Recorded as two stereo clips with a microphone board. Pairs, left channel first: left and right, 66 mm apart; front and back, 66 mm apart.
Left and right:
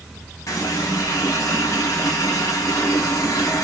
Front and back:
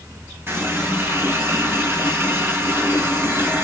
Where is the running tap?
125° left, 3.5 m.